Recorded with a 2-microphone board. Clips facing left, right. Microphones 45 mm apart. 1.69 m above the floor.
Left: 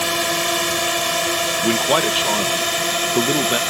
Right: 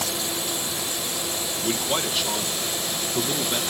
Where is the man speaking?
35° left (ahead or behind).